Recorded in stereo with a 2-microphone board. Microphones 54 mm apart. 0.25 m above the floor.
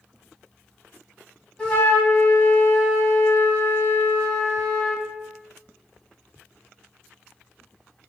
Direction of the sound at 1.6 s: 20° left (ahead or behind).